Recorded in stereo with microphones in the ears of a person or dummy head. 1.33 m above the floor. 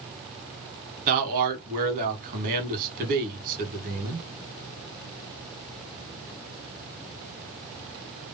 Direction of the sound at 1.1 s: 45° right (ahead or behind).